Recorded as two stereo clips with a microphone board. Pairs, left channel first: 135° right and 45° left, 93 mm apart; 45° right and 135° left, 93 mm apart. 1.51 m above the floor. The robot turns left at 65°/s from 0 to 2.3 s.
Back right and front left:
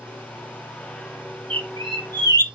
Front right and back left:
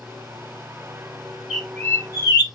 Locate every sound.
1.5 s a bird: 50° left, 0.9 m; by 2.5 s 5° right, 0.9 m